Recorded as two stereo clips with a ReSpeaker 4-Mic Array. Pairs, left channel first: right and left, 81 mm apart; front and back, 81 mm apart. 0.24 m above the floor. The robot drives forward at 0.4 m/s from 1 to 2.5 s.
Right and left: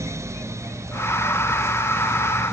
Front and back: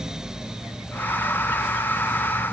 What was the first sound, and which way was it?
Only background noise.